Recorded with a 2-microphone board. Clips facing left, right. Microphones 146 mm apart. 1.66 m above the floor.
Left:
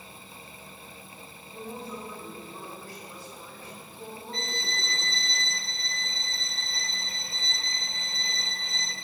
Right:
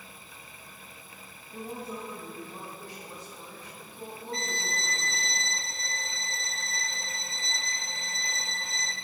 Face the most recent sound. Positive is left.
turn(degrees=-40)  # may be behind; listen again after turning